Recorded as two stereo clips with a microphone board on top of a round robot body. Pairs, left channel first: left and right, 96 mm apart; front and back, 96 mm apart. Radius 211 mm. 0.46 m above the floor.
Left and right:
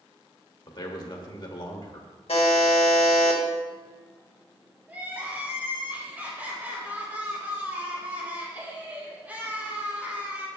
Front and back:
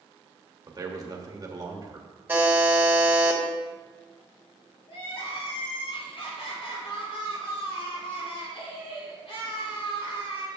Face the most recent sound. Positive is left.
turn(degrees=-20)